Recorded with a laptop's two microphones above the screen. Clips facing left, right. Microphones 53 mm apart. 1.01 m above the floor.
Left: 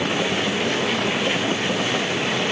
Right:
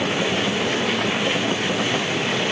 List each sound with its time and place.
Only background noise.